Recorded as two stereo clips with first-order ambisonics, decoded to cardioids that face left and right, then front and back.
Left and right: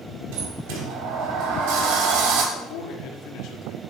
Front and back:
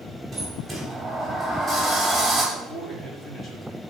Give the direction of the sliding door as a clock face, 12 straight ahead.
3 o'clock.